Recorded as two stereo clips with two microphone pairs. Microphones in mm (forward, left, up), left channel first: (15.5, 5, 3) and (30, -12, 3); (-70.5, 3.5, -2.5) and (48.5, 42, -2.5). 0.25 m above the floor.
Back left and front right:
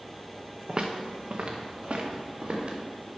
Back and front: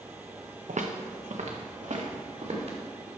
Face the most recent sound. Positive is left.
turn(degrees=-10)